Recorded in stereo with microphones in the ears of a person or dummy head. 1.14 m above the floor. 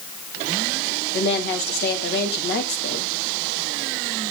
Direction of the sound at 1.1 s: 50° left (ahead or behind).